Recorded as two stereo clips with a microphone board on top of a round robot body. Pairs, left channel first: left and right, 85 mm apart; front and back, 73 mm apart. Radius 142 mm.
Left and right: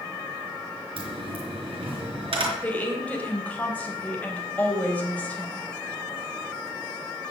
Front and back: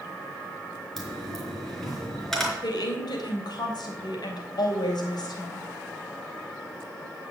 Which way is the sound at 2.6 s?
20° left.